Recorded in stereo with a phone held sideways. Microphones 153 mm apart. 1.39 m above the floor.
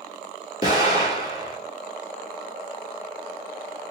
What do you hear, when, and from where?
0.6 s an explosion: 40° left (ahead or behind), 3 m